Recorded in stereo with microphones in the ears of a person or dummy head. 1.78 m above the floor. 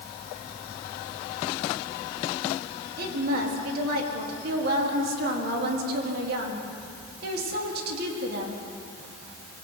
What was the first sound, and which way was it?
A woman speaking, 60° right (ahead or behind).